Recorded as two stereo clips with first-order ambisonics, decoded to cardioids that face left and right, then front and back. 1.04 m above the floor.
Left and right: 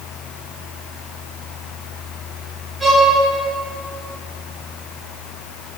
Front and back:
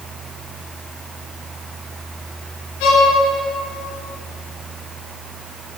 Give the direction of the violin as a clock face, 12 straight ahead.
12 o'clock.